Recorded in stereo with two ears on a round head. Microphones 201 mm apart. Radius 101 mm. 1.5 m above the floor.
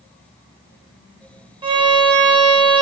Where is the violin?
20° right (ahead or behind), 1.1 m.